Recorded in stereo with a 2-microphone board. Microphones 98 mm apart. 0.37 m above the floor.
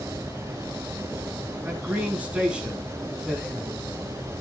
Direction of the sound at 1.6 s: 15° right (ahead or behind).